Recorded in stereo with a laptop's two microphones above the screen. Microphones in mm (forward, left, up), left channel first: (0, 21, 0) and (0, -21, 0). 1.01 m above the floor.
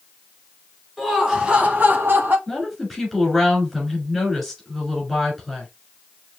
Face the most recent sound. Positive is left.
turn(degrees=-5)  # may be behind; listen again after turning